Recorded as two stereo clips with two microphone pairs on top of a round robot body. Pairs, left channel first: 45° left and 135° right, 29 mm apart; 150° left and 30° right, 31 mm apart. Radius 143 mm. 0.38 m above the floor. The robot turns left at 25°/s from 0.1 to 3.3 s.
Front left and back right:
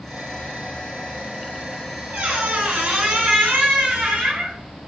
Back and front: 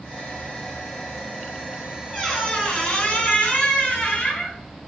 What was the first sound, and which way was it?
A squeak, 130° right.